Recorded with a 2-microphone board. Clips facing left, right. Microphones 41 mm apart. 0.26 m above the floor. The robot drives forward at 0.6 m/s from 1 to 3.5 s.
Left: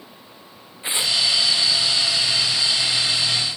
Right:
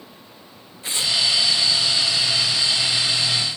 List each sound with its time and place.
0.8 s tearing paper: 25° left (ahead or behind)